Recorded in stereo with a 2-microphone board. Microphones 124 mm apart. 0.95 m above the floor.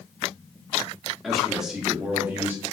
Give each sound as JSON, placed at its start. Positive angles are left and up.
{"t": 1.2, "sound": "a man speaking", "side_deg": 0, "distance_m": 1.1}